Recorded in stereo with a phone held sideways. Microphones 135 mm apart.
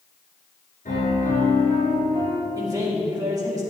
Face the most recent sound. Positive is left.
turn(degrees=-25)  # may be behind; listen again after turning